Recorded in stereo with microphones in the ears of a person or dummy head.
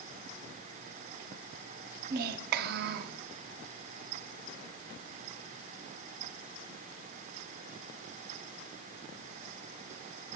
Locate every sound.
2.1 s a child speaking: 55° right (ahead or behind), 0.6 m